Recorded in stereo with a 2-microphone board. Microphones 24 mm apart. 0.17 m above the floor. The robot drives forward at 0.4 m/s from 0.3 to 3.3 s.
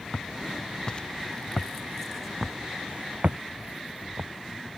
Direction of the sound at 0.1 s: 40° left (ahead or behind).